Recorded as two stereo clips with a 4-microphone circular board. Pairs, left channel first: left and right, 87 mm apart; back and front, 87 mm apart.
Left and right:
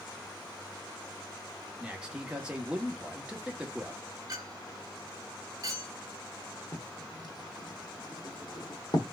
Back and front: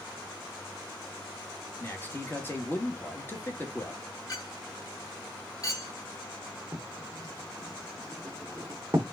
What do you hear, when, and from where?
1.8 s a man speaking: 155° right, 1.0 m
4.3 s a clink: 135° right, 1.5 m
6.7 s writing: 55° left, 1.1 m